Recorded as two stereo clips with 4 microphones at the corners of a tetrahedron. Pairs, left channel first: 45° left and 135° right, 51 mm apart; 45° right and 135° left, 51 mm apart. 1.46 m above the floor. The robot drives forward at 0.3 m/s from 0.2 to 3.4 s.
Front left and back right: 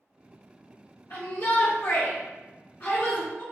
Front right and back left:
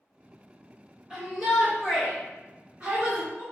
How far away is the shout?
About 1.2 m.